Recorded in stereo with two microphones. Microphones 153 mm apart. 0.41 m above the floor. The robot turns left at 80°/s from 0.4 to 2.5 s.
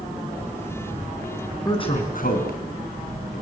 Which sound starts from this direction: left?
A man speaking, at 1.6 s.